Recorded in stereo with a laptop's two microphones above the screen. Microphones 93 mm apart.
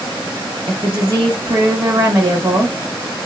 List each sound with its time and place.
0.7 s a woman speaking: 40° right (ahead or behind), 1.2 m